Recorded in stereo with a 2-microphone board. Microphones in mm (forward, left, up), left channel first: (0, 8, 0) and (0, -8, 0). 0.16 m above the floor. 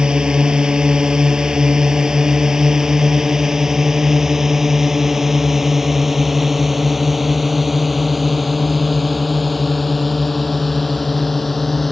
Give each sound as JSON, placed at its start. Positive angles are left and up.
{"t": 0.0, "sound": "a drone", "side_deg": -50}